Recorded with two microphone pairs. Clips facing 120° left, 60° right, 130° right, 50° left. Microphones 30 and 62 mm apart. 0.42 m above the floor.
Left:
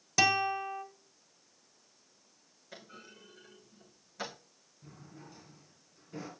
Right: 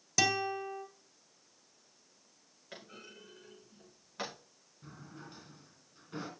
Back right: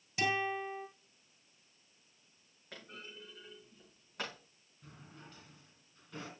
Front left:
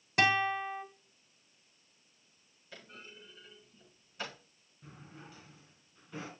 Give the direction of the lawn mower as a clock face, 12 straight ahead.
I don't hear a lawn mower.